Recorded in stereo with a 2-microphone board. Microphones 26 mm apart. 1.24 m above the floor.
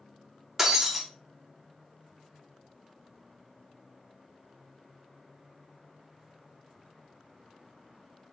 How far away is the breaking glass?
About 0.6 m.